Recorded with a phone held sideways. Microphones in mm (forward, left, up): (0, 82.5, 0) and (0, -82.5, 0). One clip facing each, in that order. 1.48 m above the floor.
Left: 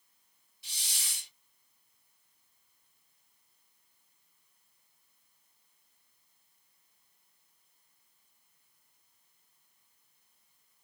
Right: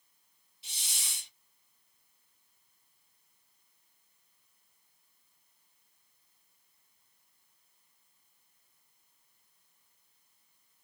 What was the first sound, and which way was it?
A hiss, 25° right (ahead or behind).